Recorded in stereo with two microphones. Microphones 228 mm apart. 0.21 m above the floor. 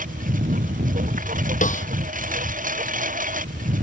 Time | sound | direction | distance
0.0 | a lawn mower | 35° right (ahead or behind) | ?
1.6 | a snare drum | 35° left (ahead or behind) | ?